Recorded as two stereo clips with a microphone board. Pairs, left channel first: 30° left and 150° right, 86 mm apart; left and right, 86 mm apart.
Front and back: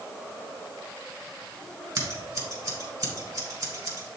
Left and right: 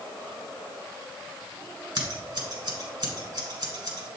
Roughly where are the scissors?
Right.